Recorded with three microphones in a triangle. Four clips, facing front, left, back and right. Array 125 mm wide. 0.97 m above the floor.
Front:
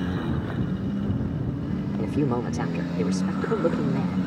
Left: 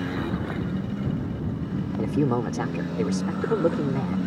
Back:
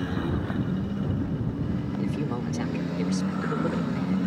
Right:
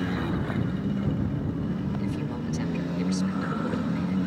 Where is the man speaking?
60° left.